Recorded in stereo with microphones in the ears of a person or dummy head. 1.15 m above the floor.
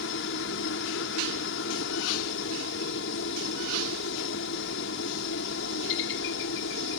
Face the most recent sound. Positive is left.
turn(degrees=70)  # may be behind; listen again after turning